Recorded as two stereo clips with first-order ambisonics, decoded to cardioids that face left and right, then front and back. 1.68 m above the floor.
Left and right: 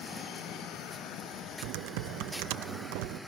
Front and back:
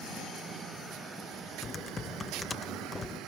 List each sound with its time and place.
1.6 s typing on a keyboard: 75° right, 0.6 m